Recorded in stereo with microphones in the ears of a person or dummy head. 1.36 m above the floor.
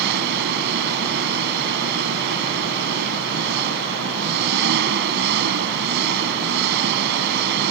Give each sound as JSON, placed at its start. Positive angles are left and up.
{"t": 0.0, "sound": "an engine running", "side_deg": -55}